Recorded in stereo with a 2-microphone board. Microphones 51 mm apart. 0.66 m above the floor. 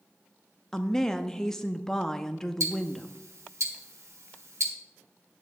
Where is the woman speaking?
10° left (ahead or behind), 0.6 m.